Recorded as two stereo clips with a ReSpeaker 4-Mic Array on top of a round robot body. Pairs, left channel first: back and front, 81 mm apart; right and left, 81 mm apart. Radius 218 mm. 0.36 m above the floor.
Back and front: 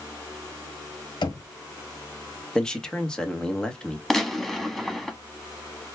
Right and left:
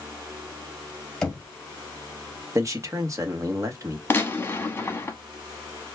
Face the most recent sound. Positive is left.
turn(degrees=-95)